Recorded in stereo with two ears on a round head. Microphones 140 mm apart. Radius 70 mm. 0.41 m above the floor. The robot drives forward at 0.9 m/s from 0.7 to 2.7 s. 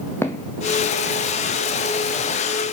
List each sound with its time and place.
0.2 s footsteps: 15° left (ahead or behind), 1.2 m; by 2.2 s 55° left (ahead or behind), 2 m